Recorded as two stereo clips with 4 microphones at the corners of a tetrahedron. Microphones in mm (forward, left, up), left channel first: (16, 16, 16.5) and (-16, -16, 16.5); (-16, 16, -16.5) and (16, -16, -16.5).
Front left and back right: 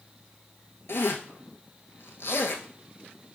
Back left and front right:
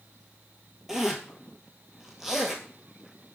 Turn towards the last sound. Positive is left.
turn(degrees=35)